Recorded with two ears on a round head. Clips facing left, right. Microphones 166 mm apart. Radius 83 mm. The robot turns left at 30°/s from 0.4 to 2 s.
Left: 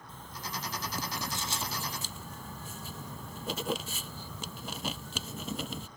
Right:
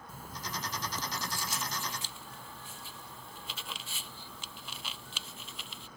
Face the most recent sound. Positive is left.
turn(degrees=140)